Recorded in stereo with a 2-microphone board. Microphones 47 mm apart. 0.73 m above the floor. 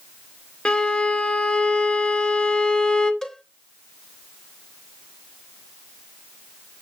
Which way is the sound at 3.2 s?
10° left (ahead or behind).